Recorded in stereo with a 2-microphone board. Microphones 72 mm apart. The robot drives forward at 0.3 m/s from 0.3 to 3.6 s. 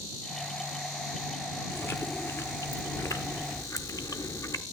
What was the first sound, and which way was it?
Chewing, 35° left (ahead or behind).